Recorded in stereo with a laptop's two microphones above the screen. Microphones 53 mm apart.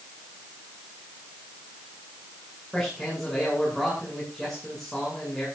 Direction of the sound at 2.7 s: 5° left (ahead or behind).